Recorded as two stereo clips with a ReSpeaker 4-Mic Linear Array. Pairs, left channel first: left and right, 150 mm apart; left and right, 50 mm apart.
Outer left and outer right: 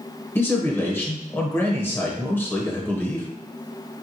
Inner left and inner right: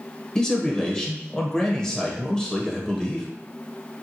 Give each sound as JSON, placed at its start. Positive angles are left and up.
{"t": 0.3, "sound": "a man speaking", "side_deg": 15, "distance_m": 1.0}